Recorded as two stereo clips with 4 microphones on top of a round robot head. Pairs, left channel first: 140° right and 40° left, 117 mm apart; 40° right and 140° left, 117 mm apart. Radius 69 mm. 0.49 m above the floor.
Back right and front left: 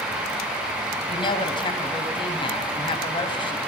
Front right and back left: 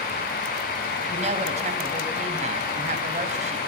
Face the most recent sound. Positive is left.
turn(degrees=170)